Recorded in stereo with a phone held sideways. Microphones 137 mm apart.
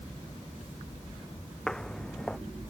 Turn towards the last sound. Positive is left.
turn(degrees=5)  # may be behind; listen again after turning